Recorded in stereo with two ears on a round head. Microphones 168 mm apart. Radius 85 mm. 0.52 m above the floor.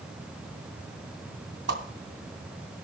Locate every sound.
1.7 s a whoosh: 65° right (ahead or behind), 2.5 m